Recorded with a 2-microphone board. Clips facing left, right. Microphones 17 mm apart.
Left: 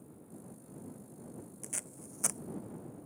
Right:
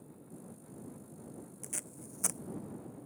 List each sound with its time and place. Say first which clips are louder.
1.6 s tape being pulled: even; 10° left (ahead or behind)